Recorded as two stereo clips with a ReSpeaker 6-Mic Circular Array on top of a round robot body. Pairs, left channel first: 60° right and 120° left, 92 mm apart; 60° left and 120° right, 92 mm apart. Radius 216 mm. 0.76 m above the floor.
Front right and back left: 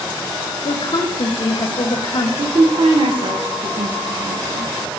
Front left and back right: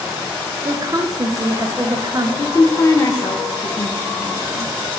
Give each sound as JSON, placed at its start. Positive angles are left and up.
{"t": 0.7, "sound": "a woman speaking", "azimuth_deg": -75, "distance_m": 0.8}
{"t": 2.4, "sound": "a woman speaking", "azimuth_deg": 115, "distance_m": 0.6}